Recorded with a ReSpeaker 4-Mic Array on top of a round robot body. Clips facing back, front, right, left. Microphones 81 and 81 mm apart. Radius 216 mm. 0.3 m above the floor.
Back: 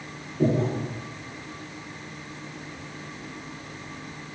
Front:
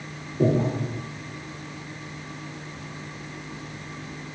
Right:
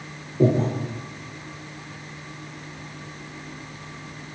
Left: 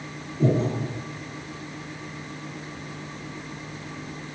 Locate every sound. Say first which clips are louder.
0.4 s breathing: front 1 dB, right 3 dB; 70° right, 2 m